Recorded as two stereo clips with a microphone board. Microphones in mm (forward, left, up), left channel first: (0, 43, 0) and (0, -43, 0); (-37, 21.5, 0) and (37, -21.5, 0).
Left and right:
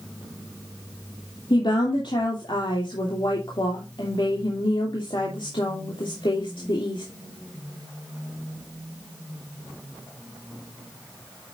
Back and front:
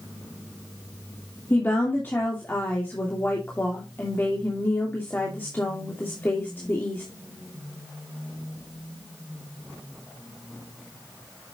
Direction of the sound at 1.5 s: 85° left.